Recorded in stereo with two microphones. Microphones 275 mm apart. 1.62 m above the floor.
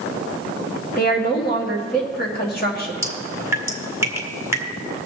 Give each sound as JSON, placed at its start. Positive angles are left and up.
{"t": 1.0, "sound": "a woman speaking", "side_deg": 35, "distance_m": 2.5}
{"t": 3.0, "sound": "dripping", "side_deg": -10, "distance_m": 1.6}